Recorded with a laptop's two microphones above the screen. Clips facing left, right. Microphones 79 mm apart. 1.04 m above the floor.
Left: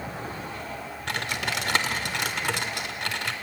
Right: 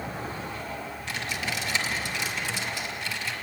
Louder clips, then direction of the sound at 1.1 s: Left 3 dB; 65° left (ahead or behind).